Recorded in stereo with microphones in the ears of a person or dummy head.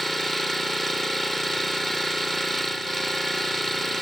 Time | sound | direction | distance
0.0 | an engine running | centre (ahead or behind) | ?